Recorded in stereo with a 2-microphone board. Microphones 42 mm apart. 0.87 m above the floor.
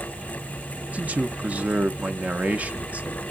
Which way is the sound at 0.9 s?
40° right (ahead or behind).